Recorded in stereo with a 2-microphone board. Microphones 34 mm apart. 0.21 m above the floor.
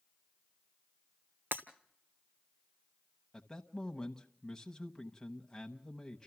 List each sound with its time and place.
1.5 s breaking glass: 70° right (ahead or behind), 1.3 m
3.3 s a man speaking: 15° left (ahead or behind), 1.0 m